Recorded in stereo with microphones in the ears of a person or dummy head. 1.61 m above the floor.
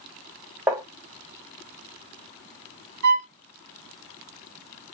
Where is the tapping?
15° right (ahead or behind), 1.0 m.